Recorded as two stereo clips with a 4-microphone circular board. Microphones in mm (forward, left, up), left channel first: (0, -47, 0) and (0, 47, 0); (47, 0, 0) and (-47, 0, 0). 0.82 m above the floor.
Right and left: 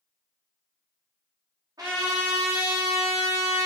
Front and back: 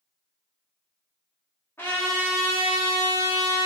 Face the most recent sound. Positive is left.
turn(degrees=60)